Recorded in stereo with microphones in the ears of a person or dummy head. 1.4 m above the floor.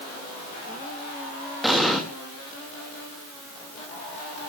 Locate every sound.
1.6 s an explosion: centre (ahead or behind), 3 m